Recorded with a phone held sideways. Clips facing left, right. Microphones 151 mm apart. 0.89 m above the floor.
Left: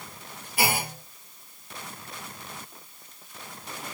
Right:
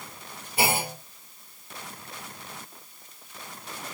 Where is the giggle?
No giggle in this recording.